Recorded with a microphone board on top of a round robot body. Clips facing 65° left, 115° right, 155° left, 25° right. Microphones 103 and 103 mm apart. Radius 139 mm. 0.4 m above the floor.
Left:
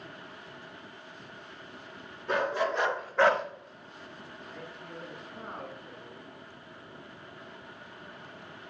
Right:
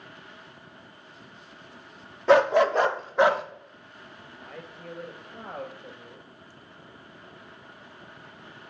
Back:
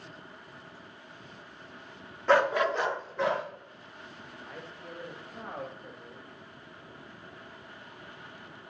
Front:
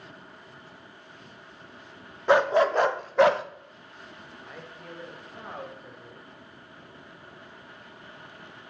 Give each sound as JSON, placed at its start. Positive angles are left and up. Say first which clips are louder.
{"t": 2.3, "sound": "a dog barking", "louder": "right 10 dB, front 4 dB", "azimuth_deg": -100, "distance_m": 0.8}
{"t": 4.4, "sound": "a man speaking", "louder": "right 4 dB, even", "azimuth_deg": -115, "distance_m": 3.0}